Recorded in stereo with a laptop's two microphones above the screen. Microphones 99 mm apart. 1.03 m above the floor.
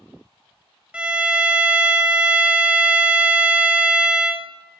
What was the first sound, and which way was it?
A violin, 10° right (ahead or behind).